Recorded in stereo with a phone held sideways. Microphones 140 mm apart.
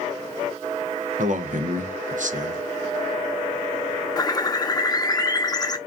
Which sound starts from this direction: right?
A man speaking, at 1.2 s.